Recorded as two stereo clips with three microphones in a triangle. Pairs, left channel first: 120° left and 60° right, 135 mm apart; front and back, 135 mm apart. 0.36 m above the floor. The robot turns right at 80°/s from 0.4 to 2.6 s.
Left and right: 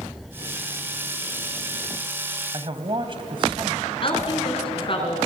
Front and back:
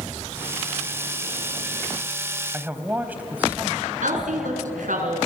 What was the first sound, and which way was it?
A man speaking, 110° right.